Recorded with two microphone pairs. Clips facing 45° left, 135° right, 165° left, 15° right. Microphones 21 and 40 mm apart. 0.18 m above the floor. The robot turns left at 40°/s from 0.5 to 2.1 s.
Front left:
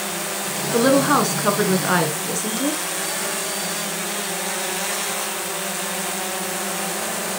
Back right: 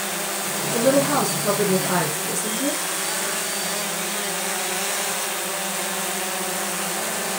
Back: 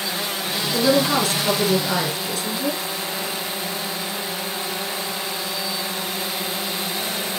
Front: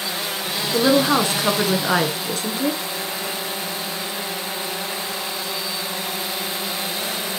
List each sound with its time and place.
0.7 s a woman speaking: 45° left, 1.9 m; by 2.8 s 10° right, 1.9 m